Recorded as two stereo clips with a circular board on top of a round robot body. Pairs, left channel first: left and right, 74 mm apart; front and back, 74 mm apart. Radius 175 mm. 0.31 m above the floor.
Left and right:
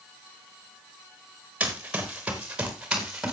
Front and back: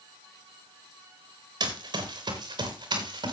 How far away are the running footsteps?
About 4 m.